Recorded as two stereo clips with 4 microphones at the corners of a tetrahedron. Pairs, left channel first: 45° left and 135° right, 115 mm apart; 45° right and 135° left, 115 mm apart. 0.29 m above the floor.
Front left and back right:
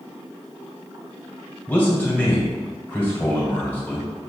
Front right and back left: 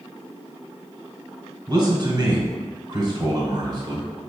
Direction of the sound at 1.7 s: 115° left.